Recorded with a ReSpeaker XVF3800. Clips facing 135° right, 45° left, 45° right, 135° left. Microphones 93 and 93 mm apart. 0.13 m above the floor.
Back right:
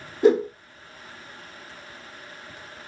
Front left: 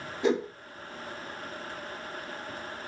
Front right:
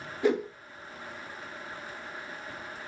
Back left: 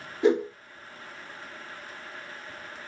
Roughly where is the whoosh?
Behind.